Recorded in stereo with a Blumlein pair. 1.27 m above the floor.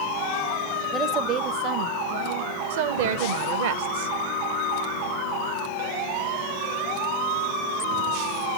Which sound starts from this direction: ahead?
A woman speaking, at 0.9 s.